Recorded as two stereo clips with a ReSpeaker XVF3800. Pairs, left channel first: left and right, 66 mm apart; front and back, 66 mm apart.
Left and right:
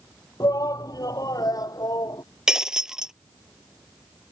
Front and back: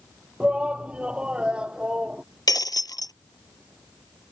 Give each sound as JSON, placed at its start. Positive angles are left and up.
{"t": 0.4, "sound": "a shout", "azimuth_deg": 105}
{"t": 2.5, "sound": "breaking glass", "azimuth_deg": -10}